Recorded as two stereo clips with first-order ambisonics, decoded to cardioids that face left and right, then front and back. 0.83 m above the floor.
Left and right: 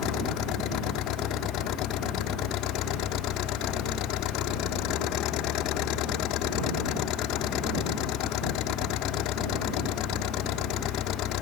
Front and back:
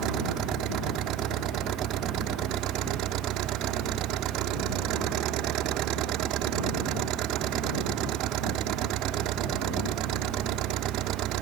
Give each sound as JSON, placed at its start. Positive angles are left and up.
{"t": 0.0, "sound": "an engine running", "azimuth_deg": 130}